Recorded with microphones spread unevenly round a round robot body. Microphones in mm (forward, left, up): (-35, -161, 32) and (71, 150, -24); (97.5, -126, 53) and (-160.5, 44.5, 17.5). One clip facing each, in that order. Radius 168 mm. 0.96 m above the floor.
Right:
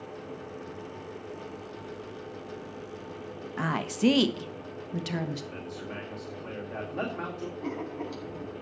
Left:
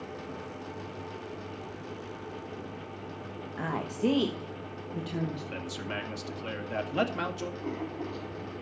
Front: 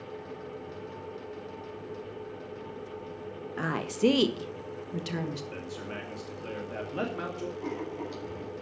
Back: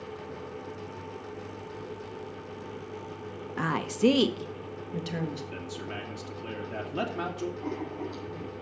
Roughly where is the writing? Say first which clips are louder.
Right 2 dB, back 1 dB; right.